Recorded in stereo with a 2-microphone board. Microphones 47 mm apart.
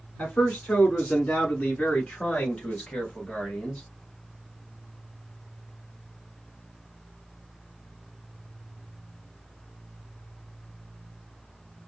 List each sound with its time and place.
0.2 s a man speaking: 30° left (ahead or behind), 1.4 m; by 3.8 s 20° left (ahead or behind), 2.5 m